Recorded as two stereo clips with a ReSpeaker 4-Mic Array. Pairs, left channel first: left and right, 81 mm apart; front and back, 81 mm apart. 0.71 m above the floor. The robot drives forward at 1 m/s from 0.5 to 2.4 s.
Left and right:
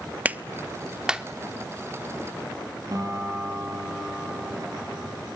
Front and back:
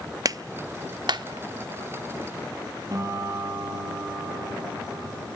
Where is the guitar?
135° right, 8 m.